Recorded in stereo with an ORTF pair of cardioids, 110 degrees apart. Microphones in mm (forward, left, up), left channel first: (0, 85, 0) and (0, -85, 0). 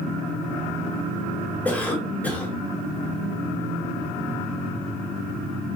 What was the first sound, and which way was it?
A cough, 10° left.